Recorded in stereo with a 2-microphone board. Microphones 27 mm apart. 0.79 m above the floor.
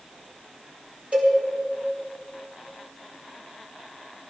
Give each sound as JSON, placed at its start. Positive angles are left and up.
{"t": 1.1, "sound": "a cowbell", "side_deg": -55, "distance_m": 4.5}